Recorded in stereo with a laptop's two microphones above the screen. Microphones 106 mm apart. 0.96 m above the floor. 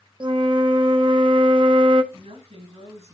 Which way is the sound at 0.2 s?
45° right (ahead or behind).